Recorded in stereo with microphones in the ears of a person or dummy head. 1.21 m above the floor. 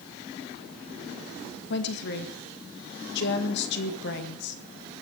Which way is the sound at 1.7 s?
60° left (ahead or behind).